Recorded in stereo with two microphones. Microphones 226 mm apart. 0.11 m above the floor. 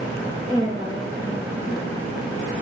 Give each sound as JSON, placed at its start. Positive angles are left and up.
{"t": 0.5, "sound": "a woman speaking", "side_deg": -20, "distance_m": 2.0}